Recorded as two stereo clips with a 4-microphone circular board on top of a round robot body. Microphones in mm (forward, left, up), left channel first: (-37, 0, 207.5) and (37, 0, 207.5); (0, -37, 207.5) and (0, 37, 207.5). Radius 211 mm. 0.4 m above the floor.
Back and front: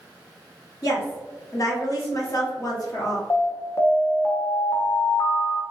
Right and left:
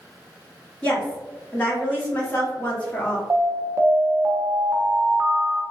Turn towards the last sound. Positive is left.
turn(degrees=140)